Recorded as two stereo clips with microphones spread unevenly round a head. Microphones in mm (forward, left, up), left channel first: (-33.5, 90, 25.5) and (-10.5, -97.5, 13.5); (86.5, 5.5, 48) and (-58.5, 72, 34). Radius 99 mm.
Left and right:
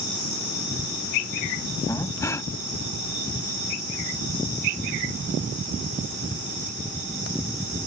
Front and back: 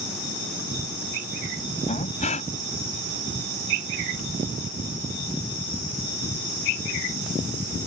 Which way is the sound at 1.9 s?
20° left.